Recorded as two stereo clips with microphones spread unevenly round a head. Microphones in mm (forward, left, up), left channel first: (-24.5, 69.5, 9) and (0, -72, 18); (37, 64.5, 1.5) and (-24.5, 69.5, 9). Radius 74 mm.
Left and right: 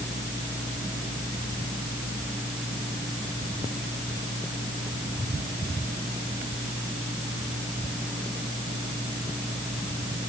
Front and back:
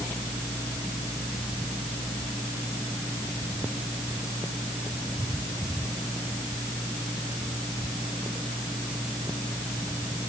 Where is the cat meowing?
I don't hear a cat meowing.